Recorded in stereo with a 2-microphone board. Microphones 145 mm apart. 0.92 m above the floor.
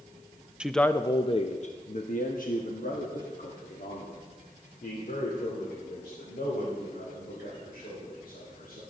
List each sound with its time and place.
0.6 s a man speaking: 5° right (ahead or behind), 0.5 m; by 8.8 s 85° left, 5 m